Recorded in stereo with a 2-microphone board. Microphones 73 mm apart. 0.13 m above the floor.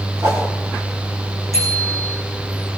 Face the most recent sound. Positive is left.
turn(degrees=-40)  # may be behind; listen again after turning